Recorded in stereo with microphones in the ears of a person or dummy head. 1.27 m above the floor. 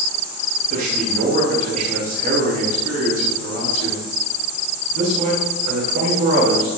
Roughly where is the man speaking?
Right.